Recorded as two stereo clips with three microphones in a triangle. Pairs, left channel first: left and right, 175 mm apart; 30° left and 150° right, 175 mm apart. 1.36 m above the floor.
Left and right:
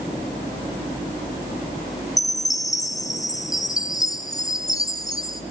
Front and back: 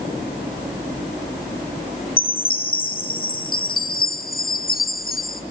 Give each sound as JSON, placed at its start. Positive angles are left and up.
{"t": 2.2, "sound": "a chime", "azimuth_deg": 25, "distance_m": 0.8}